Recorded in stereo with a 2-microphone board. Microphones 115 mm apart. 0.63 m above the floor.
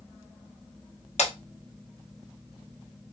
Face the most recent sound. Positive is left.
turn(degrees=70)  # may be behind; listen again after turning